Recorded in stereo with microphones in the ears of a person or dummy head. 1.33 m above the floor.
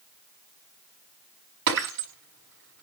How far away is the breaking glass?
About 5 m.